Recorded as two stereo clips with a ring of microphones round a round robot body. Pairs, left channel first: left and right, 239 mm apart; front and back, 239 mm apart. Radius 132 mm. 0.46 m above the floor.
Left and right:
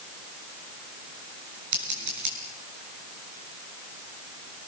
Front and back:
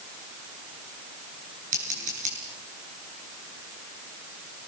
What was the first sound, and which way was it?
Scissors, 115° right.